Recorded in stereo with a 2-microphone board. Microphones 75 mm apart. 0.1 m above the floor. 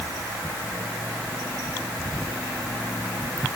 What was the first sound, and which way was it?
Only background noise.